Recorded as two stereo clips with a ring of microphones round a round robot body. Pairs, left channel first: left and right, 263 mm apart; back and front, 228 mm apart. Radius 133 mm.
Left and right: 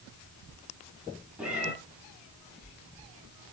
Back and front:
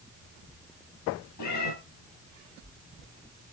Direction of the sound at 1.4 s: 175° right.